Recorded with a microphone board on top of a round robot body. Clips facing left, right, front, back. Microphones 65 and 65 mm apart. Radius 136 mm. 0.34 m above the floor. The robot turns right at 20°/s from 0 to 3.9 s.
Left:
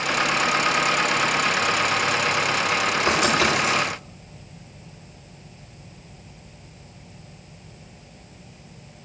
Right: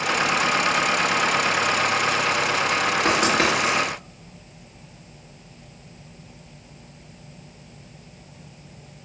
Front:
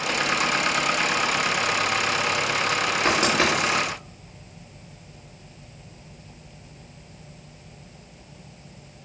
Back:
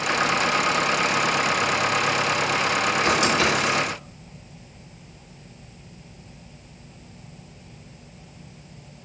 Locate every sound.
3.0 s writing: 55° right, 3.5 m; by 3.8 s 40° right, 3.5 m